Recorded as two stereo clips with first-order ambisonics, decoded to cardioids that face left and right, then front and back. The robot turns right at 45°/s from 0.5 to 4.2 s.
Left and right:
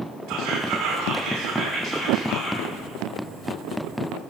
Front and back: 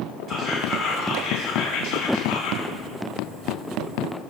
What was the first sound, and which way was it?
Whispering, 60° right.